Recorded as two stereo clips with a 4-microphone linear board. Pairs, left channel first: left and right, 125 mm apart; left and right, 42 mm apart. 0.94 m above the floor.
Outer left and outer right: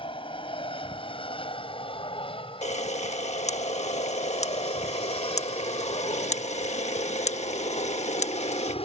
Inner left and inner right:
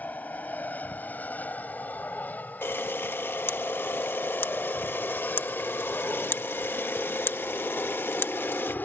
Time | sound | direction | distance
0.0 | an aircraft | 45° left (ahead or behind) | ?
2.6 | a camera shutter | 65° left (ahead or behind) | ?